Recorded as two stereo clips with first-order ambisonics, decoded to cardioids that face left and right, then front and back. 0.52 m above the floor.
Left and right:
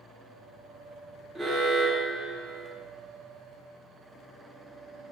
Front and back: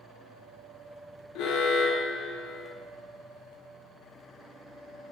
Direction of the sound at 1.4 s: 5° right.